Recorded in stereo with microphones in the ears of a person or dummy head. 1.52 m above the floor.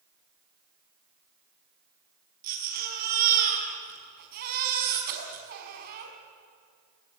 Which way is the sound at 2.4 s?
50° right (ahead or behind).